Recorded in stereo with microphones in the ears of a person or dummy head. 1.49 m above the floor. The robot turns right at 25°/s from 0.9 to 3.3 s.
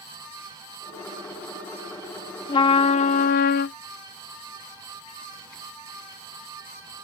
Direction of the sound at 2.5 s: 20° left (ahead or behind).